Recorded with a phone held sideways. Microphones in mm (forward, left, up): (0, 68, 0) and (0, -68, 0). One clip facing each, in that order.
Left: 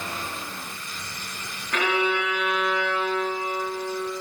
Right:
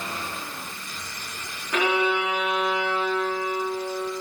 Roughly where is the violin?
Centre.